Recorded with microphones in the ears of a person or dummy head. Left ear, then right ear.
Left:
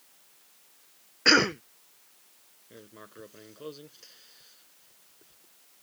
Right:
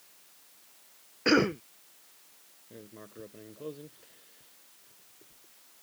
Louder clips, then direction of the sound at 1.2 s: Left 4 dB; 40° left (ahead or behind).